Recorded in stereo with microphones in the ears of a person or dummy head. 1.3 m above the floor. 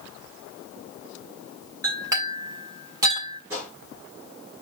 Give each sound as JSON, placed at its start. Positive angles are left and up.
{"t": 1.8, "sound": "a clink", "side_deg": -20, "distance_m": 2.0}
{"t": 3.5, "sound": "a gunshot", "side_deg": -15, "distance_m": 5.0}